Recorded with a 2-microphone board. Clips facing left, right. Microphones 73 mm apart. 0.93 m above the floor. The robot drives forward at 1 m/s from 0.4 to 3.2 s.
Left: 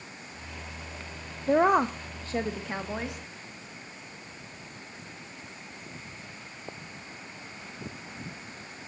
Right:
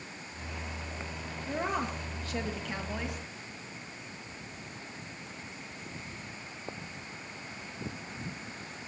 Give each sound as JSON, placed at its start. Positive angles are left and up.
{"t": 1.5, "sound": "a woman speaking", "side_deg": 55, "distance_m": 0.8}